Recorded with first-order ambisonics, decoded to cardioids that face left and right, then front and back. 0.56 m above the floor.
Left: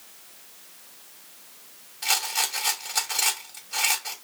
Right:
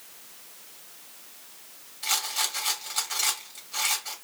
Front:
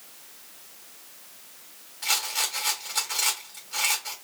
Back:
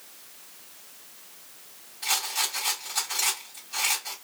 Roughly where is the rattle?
Left.